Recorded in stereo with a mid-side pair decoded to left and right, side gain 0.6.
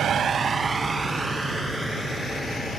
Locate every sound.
0.0 s a vehicle: 50° right; by 2.8 s straight ahead